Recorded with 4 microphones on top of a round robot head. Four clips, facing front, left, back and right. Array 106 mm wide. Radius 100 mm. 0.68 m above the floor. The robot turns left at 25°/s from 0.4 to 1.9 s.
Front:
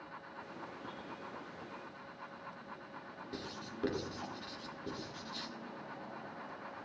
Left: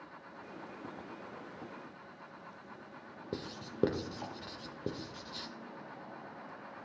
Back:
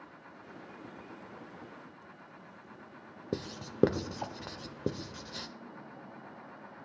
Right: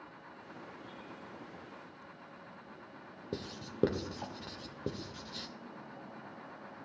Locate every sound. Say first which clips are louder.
3.3 s writing: even, back 8 dB; 175° left, 0.7 m